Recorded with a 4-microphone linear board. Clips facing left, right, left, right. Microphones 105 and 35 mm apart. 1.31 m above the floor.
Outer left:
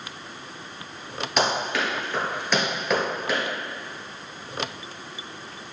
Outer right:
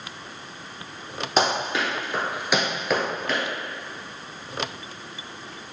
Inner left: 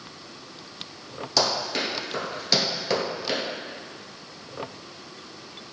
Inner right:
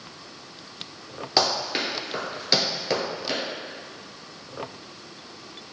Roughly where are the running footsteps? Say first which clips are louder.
Outer right 1 dB, inner right 1 dB; right.